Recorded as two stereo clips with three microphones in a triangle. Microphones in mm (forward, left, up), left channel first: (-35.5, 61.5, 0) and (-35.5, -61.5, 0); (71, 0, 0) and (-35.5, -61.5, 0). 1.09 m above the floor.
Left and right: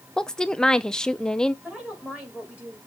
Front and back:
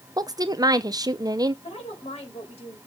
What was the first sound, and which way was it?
A woman speaking, 170° left.